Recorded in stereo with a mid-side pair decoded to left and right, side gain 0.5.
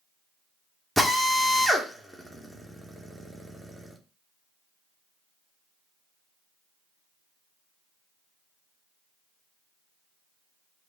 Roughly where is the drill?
Ahead.